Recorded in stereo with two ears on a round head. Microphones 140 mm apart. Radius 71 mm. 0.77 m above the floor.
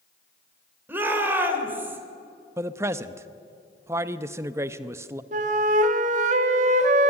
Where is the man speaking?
15° right (ahead or behind), 0.7 m.